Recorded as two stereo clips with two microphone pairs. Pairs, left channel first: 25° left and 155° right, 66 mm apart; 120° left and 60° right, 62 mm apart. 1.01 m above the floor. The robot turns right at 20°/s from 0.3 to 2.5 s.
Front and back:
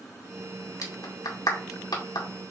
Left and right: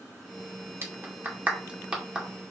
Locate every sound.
0.8 s a clap: 10° right, 2 m; by 2.4 s 25° left, 2 m